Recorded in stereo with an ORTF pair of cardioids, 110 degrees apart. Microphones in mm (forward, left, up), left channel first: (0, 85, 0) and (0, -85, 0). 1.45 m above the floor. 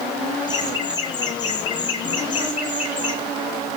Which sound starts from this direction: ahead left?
Laughter, at 0.5 s.